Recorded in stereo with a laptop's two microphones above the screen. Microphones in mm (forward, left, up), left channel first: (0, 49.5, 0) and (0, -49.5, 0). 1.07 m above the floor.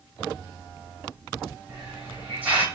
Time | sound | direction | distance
1.7 | a hiss | 15° right (ahead or behind) | 1.3 m